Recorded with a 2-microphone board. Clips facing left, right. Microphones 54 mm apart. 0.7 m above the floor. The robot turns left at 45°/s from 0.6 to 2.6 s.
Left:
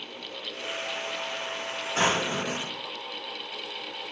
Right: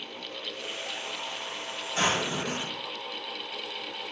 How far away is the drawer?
About 0.9 m.